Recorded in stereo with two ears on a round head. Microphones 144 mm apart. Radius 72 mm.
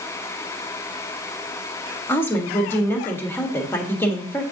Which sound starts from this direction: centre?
A woman speaking, at 2.1 s.